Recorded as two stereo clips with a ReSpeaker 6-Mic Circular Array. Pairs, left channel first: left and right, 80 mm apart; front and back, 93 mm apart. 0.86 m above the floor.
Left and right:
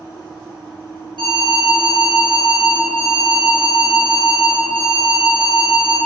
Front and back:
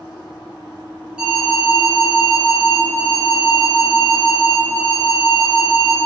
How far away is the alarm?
About 1.3 m.